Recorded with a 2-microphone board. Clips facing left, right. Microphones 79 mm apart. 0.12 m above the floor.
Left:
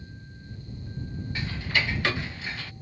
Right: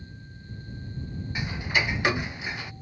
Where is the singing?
I don't hear singing.